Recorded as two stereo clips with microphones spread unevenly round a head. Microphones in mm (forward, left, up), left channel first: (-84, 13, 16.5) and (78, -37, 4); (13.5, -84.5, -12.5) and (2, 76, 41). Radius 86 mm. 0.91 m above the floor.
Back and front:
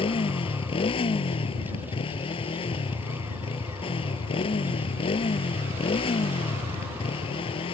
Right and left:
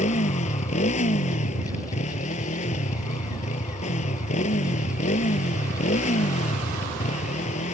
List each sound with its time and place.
0.0 s a motorcycle: 140° right